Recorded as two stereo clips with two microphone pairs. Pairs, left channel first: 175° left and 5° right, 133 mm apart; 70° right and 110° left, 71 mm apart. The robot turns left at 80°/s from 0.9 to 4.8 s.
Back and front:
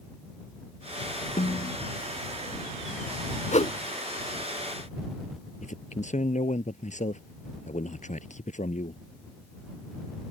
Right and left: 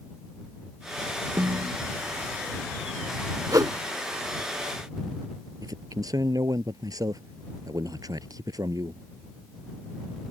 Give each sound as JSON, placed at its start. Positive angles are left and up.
{"t": 1.4, "sound": "a snare drum", "azimuth_deg": 170}
{"t": 3.5, "sound": "a whoosh", "azimuth_deg": 150}
{"t": 5.6, "sound": "a man speaking", "azimuth_deg": 145}